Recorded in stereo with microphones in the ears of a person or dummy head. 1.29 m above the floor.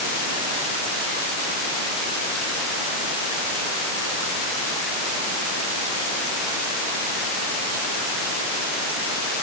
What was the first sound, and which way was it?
Only background noise.